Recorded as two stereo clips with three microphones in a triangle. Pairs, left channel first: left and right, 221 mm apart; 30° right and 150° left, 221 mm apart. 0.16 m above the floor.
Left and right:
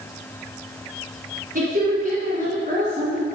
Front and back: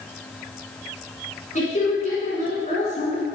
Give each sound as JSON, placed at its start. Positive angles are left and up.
{"t": 1.6, "sound": "a woman speaking", "azimuth_deg": -70, "distance_m": 1.6}